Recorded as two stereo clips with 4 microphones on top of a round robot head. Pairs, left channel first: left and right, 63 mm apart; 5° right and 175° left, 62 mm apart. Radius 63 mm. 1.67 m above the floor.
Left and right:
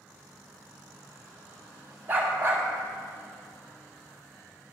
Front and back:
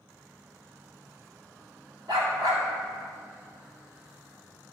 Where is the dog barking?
145° right, 1.9 m.